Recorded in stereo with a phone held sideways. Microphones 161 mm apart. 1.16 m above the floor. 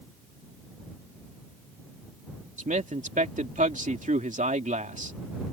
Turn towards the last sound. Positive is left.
turn(degrees=-50)  # may be behind; listen again after turning